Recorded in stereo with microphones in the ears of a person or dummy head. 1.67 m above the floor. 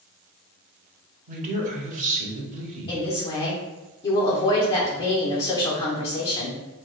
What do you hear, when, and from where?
1.3 s a man speaking: 40° right (ahead or behind), 0.9 m
2.9 s a woman speaking: 20° left (ahead or behind), 0.9 m